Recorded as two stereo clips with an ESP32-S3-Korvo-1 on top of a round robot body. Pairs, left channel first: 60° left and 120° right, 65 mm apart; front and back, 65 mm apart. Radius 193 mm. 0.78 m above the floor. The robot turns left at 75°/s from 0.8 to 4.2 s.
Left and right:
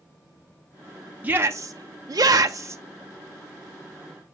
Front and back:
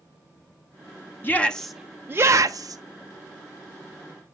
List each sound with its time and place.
1.2 s a shout: 55° right, 0.7 m; by 2.8 s 175° right, 0.7 m